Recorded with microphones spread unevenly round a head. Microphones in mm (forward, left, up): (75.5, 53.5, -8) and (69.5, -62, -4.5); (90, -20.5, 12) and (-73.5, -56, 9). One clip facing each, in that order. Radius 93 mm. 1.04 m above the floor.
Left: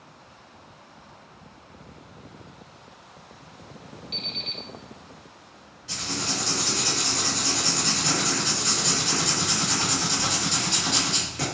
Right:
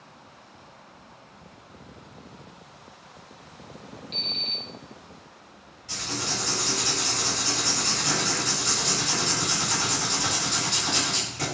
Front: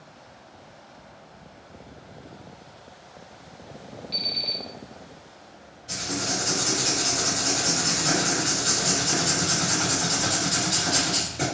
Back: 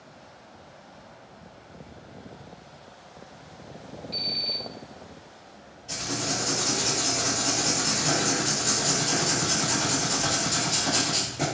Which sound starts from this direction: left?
Writing, at 5.9 s.